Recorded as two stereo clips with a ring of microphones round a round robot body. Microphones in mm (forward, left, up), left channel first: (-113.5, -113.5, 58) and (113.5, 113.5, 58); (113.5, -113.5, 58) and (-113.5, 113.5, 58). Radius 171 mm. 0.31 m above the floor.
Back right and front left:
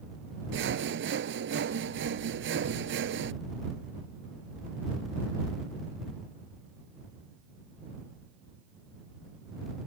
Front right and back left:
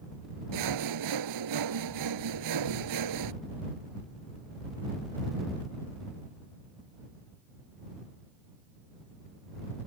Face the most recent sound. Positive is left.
turn(degrees=100)